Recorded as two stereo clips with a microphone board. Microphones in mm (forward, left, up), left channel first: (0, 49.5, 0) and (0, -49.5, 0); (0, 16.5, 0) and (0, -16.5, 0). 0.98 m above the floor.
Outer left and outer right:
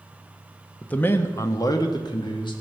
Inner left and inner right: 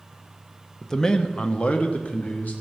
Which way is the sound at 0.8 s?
15° left (ahead or behind).